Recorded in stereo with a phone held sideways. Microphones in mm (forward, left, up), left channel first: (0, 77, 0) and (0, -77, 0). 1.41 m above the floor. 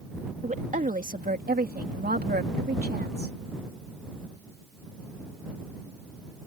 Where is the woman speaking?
50° right (ahead or behind); by 3.4 s 80° right.